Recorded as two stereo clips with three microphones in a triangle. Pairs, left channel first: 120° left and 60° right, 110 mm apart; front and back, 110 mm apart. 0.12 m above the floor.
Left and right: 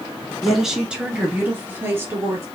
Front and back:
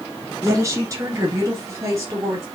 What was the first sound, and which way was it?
A woman speaking, 150° right.